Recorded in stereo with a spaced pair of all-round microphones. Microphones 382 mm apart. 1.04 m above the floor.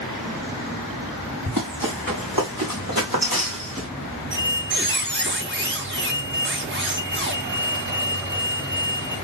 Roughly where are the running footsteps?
Right.